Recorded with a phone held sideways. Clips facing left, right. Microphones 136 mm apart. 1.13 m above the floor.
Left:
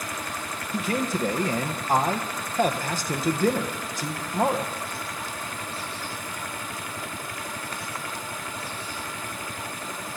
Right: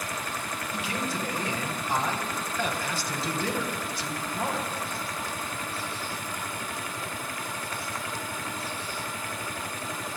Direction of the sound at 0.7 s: 45° left (ahead or behind).